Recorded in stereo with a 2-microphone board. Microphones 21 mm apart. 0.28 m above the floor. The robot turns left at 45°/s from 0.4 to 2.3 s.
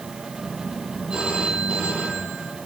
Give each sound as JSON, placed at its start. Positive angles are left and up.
{"t": 1.1, "sound": "a phone ringing", "azimuth_deg": -45, "distance_m": 7.0}